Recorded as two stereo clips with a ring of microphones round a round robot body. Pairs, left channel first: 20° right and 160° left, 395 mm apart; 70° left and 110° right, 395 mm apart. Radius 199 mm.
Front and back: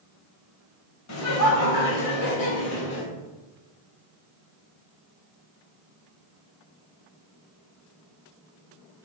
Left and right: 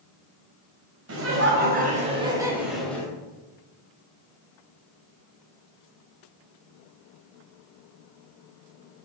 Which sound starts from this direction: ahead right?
Laughter, at 1.1 s.